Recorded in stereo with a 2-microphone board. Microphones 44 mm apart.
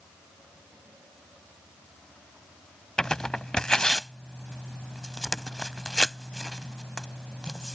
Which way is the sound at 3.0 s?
15° left (ahead or behind).